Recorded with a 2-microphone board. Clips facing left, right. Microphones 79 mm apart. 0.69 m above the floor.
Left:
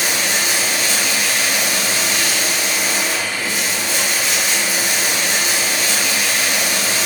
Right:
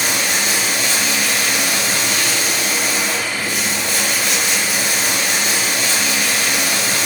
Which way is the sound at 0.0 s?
60° right (ahead or behind).